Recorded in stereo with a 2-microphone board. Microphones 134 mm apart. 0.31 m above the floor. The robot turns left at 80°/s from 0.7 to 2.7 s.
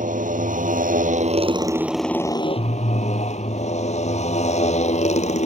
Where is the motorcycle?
75° right; by 5.5 s 125° left.